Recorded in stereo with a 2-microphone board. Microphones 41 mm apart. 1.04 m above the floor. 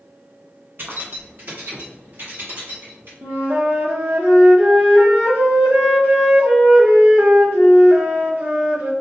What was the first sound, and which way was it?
Keys jangling, 55° right (ahead or behind).